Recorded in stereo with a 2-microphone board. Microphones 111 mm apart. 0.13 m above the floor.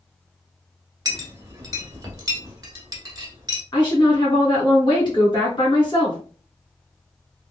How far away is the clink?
About 0.9 m.